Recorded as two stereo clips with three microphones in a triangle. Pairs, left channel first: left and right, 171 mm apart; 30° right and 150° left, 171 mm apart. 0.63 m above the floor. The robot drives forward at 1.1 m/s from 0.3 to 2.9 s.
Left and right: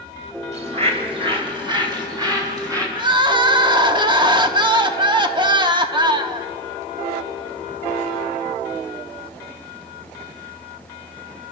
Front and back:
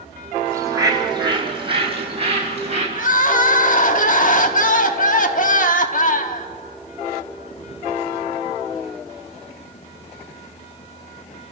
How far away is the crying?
About 1.0 m.